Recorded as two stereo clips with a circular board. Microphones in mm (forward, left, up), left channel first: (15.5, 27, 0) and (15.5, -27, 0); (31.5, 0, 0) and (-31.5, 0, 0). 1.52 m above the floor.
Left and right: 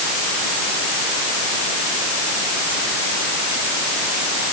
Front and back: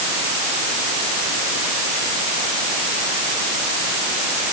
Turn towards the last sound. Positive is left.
No sound to turn to.